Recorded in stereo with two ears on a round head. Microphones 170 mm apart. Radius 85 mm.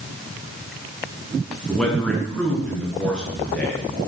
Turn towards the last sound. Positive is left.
turn(degrees=5)  # may be behind; listen again after turning